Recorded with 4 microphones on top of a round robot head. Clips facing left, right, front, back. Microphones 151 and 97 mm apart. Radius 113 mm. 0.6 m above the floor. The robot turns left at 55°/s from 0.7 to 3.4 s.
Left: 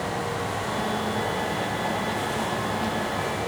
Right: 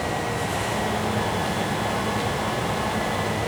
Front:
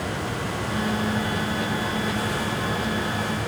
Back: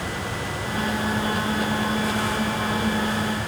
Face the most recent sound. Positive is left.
No sound to turn to.